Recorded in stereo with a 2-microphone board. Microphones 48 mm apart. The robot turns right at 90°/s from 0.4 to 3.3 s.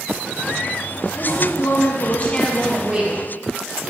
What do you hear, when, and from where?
1.2 s a woman speaking: 45° left, 1.9 m; by 3.2 s 130° right, 1.9 m